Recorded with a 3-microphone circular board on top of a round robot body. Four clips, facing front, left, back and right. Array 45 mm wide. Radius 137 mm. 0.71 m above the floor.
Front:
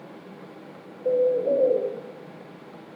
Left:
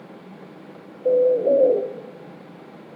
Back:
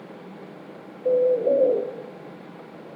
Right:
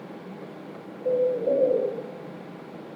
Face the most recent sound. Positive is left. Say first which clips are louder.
# left 6 dB, back 2 dB
turn(degrees=100)